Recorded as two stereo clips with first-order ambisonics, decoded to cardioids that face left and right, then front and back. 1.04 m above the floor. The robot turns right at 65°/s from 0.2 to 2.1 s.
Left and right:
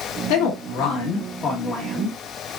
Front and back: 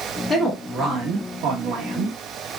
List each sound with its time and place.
0.3 s a woman speaking: 80° left, 1.2 m; by 2.1 s 165° right, 1.2 m